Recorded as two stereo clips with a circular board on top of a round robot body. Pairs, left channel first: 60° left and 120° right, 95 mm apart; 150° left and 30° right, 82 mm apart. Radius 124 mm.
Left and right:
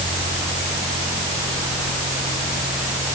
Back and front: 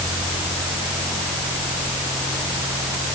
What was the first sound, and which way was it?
Only background noise.